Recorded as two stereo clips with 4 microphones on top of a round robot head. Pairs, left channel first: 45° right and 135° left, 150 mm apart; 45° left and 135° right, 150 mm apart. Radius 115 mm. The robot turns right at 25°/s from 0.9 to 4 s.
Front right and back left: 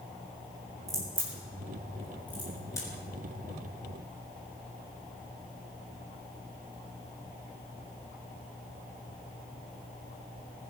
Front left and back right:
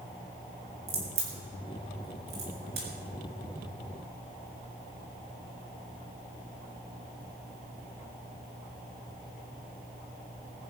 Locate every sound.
0.9 s a crack: 160° right, 6 m; by 2.9 s 110° right, 6 m